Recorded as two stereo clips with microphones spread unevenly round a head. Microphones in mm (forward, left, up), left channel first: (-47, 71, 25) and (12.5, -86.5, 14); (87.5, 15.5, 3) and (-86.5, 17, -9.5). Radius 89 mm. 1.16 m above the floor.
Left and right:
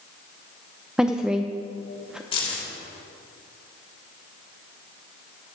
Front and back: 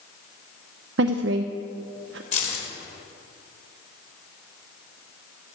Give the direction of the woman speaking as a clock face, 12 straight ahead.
5 o'clock.